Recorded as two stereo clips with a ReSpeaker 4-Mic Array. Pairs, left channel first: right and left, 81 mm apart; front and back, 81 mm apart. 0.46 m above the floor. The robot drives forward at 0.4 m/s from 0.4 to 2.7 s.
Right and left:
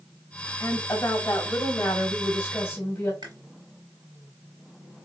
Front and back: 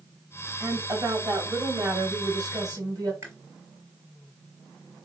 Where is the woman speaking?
135° right, 1.8 m; by 3.1 s 150° right, 2.5 m.